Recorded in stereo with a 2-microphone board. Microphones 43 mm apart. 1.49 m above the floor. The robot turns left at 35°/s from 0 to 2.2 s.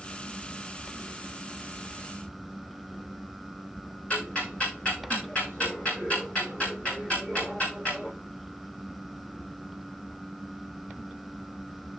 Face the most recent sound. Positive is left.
turn(degrees=30)  # may be behind; listen again after turning